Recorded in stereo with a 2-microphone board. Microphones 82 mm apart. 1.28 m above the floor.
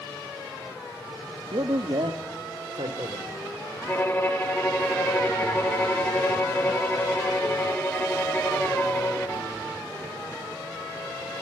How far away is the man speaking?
About 1.9 m.